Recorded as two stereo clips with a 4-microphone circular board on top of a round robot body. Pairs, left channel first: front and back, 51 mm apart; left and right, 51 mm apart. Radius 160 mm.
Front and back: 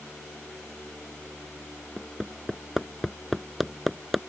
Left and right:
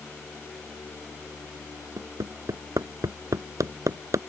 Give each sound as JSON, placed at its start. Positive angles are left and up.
{"t": 2.0, "sound": "hammering", "azimuth_deg": -90}